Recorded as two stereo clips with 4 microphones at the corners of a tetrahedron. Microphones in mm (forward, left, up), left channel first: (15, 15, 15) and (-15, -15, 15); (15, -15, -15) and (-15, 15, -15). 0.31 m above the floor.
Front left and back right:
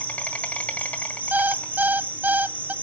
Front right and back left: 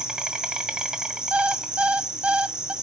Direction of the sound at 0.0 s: 75° left.